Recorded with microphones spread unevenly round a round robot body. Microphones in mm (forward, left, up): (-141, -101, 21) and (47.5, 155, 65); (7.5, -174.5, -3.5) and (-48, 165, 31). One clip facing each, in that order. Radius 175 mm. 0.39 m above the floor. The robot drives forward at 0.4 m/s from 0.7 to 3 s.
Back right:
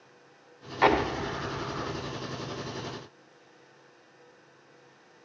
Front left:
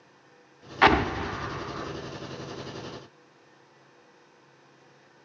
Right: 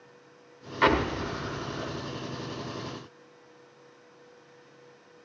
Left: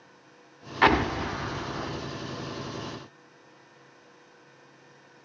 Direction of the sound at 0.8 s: 15° left.